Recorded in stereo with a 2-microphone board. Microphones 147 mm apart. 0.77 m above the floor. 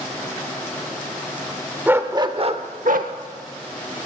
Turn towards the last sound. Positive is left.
turn(degrees=-75)  # may be behind; listen again after turning